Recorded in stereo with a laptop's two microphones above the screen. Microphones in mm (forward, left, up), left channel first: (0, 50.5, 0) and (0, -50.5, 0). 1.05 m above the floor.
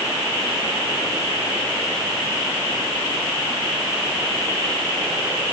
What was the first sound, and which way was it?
Only background noise.